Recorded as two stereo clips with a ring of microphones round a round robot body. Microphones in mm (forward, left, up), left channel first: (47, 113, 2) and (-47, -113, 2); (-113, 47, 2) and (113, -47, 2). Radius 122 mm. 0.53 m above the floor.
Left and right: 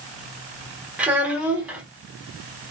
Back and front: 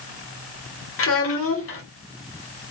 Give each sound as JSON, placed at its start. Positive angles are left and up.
{"t": 1.0, "sound": "a child speaking", "azimuth_deg": 165, "distance_m": 1.0}